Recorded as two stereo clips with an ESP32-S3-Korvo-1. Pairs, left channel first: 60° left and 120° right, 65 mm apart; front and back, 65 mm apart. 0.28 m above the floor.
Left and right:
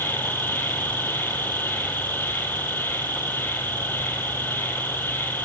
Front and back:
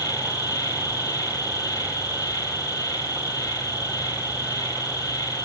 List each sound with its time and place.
0.0 s an insect: 5° left, 5.5 m